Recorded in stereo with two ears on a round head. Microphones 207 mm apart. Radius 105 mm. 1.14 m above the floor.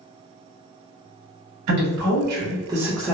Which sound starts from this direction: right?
A woman speaking, at 1.7 s.